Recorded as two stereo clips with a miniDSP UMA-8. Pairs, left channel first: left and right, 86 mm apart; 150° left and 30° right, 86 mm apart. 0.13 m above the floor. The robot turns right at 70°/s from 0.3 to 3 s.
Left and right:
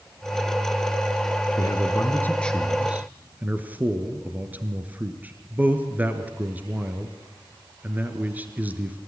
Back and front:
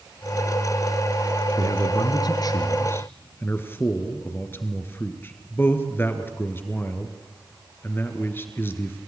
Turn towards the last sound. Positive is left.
turn(degrees=-155)